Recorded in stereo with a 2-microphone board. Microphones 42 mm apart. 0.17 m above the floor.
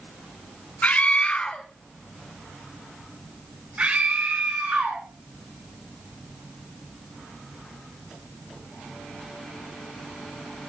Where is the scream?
40° left (ahead or behind), 1.4 m; by 5.0 s 55° right (ahead or behind), 1.8 m.